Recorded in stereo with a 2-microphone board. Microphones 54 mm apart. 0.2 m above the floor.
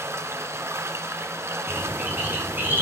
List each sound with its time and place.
0.0 s running water: 60° right (ahead or behind), 1.6 m
1.7 s a bird: 40° right (ahead or behind), 4 m